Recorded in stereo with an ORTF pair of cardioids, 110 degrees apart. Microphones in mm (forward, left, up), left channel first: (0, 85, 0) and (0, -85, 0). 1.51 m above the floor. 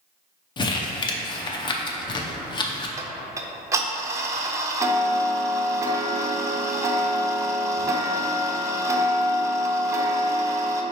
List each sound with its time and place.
0.6 s crumpling: 25° left, 0.6 m
3.0 s ticking: 20° right, 0.5 m